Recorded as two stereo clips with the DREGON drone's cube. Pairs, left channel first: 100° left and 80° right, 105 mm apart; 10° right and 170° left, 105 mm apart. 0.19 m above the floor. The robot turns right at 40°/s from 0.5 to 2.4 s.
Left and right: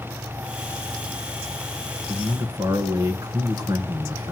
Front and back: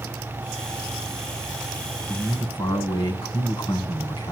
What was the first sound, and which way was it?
A man speaking, 55° right.